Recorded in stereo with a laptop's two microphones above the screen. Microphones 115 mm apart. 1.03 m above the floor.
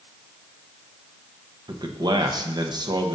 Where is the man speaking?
40° right (ahead or behind), 0.8 m.